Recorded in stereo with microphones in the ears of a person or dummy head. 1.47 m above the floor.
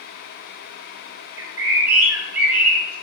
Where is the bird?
15° right (ahead or behind), 0.6 m.